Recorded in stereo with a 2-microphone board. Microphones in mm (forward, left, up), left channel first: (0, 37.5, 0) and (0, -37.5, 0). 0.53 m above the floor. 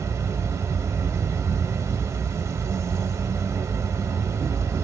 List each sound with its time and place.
0.0 s an insect: 45° right (ahead or behind), 0.8 m